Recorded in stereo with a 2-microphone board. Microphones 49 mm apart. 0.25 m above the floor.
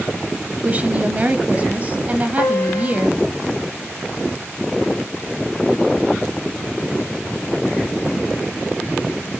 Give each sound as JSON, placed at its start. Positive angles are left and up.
{"t": 0.6, "sound": "a woman speaking", "side_deg": -35, "distance_m": 1.1}
{"t": 2.4, "sound": "a piano", "side_deg": 65, "distance_m": 0.5}